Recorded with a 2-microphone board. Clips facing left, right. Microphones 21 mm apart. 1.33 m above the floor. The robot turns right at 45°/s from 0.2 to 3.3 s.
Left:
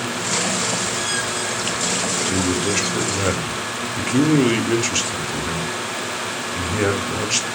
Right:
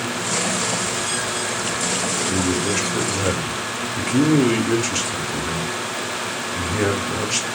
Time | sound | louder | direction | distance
2.3 | a man speaking | even | 80° left | 0.6 m